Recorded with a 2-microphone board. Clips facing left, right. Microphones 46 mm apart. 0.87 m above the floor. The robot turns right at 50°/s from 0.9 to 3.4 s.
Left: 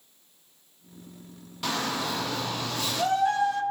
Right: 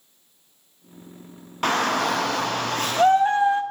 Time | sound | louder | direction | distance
1.6 | a shout | right 8 dB | 120° right | 0.7 m